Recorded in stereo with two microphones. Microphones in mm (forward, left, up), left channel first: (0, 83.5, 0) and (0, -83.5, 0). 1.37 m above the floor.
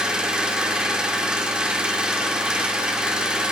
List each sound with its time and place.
0.0 s an engine running: 5° right (ahead or behind), 2.0 m